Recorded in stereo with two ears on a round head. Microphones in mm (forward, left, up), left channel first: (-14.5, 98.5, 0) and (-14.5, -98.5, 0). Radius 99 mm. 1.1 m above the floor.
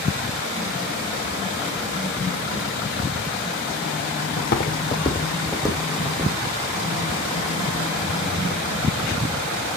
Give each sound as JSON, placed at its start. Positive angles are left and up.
{"t": 4.4, "sound": "footsteps", "side_deg": 50, "distance_m": 1.9}